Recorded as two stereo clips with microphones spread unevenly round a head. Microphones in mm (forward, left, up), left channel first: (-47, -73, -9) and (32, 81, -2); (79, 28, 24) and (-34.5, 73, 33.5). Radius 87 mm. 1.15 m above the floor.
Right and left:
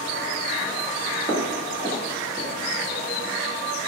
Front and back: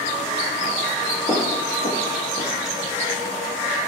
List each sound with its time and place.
1.3 s footsteps: 40° right, 1.5 m; by 2.5 s 5° right, 1.2 m